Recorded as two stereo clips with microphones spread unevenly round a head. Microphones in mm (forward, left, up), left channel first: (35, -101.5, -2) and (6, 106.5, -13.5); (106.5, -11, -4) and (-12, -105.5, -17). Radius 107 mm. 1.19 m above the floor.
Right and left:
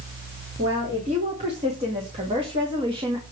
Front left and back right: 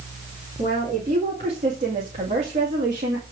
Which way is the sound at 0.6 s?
160° left.